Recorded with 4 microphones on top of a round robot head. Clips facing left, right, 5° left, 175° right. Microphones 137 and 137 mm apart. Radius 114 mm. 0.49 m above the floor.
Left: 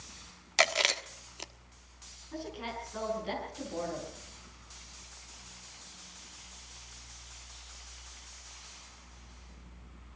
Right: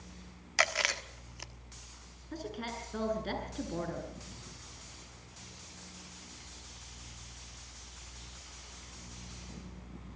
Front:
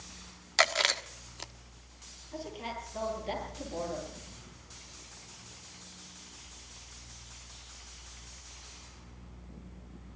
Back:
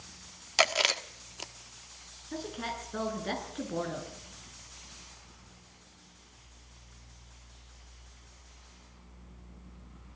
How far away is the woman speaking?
About 7.5 m.